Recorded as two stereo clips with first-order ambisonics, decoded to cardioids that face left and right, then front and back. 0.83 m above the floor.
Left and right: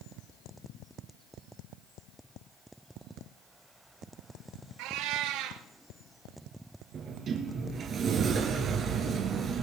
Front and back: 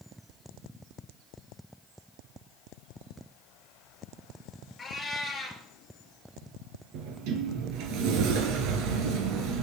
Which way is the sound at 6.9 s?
155° right.